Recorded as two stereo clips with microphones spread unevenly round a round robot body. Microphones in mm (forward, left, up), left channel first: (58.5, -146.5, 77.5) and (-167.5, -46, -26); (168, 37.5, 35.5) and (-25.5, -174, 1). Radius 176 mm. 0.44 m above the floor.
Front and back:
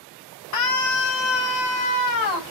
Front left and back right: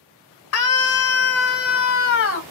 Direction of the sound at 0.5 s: 20° left.